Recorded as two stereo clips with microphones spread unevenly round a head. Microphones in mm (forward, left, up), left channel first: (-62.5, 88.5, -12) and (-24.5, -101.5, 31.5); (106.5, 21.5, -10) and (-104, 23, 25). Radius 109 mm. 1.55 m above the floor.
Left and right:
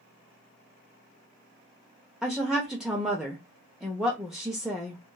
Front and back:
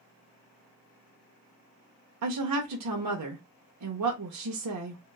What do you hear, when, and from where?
2.2 s a woman speaking: 170° right, 0.7 m